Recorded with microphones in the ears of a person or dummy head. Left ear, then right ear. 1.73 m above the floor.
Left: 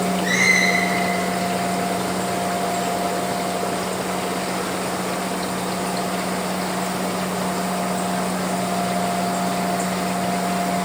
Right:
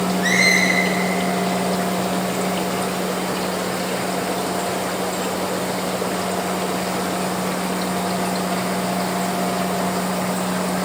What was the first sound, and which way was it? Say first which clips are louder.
A squeak: right 1 dB; 40° right (ahead or behind).